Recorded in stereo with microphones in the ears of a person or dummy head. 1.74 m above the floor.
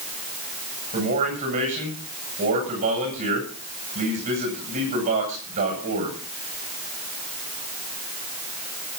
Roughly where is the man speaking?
Right.